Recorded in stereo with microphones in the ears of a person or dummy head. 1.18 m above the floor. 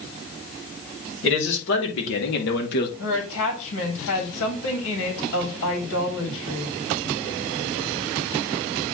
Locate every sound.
1.2 s a man speaking: 65° left (ahead or behind), 3 m; by 2.9 s 55° left (ahead or behind), 2 m
3.0 s a woman speaking: 65° left (ahead or behind), 3 m